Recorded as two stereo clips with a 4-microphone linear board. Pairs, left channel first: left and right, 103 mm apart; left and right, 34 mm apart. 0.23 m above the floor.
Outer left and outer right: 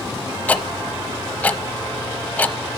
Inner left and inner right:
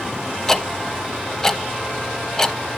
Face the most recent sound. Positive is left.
turn(degrees=15)  # may be behind; listen again after turning